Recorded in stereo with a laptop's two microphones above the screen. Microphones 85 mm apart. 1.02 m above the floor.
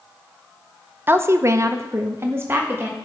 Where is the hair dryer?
I don't hear a hair dryer.